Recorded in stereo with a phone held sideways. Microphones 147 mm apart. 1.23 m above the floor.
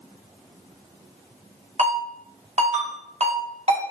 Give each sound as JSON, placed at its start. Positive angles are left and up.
{"t": 1.8, "sound": "a ringtone", "side_deg": -50, "distance_m": 0.7}